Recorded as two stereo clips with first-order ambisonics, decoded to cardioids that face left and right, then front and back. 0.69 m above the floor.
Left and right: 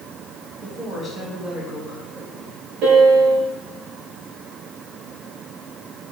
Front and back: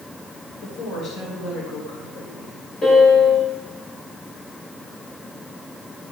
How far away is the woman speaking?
About 3 m.